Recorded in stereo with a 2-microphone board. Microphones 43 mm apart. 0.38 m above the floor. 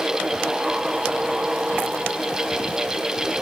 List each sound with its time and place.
Only background noise.